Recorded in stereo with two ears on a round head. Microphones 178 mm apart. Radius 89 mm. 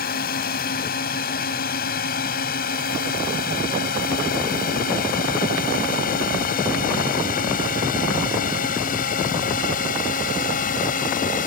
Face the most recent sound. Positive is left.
turn(degrees=45)  # may be behind; listen again after turning